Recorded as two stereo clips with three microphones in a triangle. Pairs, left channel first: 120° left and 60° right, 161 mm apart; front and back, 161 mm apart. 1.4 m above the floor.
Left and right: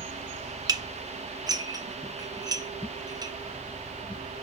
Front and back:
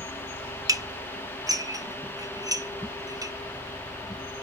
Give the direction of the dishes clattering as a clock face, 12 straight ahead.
4 o'clock.